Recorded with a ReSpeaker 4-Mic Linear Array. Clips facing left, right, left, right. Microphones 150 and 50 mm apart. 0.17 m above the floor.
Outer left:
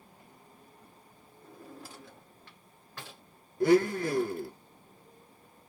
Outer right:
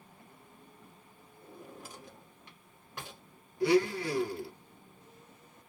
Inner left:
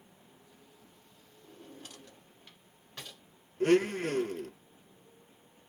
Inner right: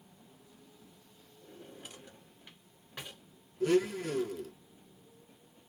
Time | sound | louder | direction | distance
1.4 | a drawer | outer left 1 dB, even | 15° right (ahead or behind) | 1.2 m
3.6 | a blender | outer left 3 dB, inner left 3 dB | 50° left (ahead or behind) | 0.5 m